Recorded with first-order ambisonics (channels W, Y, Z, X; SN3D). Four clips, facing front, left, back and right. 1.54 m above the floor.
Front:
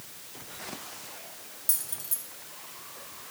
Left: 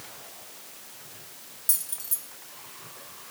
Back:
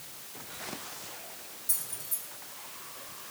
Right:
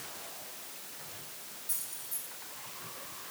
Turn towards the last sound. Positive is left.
turn(degrees=60)